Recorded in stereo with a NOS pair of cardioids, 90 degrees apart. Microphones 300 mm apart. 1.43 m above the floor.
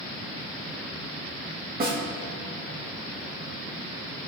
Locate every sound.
1.8 s a snare drum: 30° right, 1.6 m